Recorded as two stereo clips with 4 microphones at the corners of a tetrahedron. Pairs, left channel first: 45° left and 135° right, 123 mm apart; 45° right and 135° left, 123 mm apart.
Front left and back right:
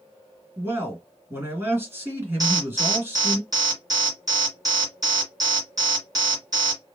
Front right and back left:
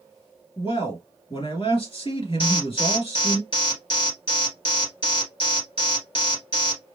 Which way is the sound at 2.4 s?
85° right.